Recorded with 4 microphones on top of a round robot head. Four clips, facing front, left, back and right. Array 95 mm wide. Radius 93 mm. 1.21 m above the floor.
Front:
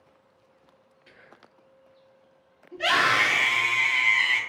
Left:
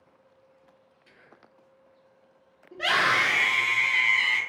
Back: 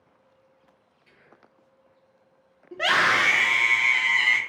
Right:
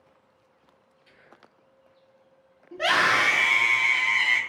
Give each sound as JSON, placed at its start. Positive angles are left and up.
{"t": 1.1, "sound": "whispering", "azimuth_deg": 20, "distance_m": 0.5}
{"t": 2.7, "sound": "a scream", "azimuth_deg": -165, "distance_m": 0.8}